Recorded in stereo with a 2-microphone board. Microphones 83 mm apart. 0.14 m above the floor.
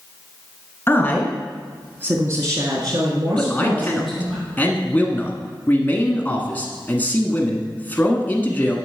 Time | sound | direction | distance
0.9 | a woman speaking | 25° left (ahead or behind) | 1.3 m
3.4 | a man speaking | 20° left (ahead or behind) | 1.2 m